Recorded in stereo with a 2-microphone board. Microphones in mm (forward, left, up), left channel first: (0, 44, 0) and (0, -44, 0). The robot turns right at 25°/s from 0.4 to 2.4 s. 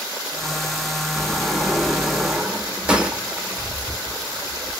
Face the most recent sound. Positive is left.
turn(degrees=-160)